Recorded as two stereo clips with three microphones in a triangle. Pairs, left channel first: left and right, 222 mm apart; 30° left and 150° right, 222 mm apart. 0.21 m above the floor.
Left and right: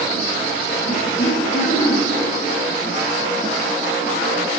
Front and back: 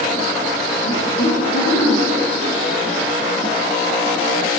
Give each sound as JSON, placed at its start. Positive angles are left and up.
{"t": 0.8, "sound": "laughter", "azimuth_deg": 40, "distance_m": 5.0}